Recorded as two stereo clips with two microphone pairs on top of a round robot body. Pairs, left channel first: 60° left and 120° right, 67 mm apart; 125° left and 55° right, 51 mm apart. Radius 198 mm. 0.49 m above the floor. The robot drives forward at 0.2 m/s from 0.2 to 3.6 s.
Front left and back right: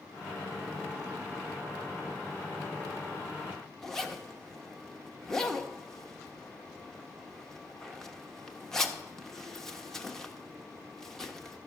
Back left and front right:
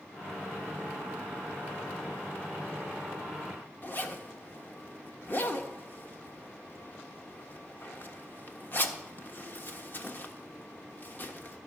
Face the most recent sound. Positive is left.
turn(degrees=135)